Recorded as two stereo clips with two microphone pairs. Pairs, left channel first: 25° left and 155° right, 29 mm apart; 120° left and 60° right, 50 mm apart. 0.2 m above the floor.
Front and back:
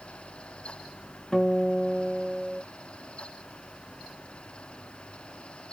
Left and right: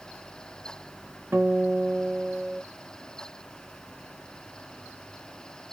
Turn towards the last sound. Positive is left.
turn(degrees=-35)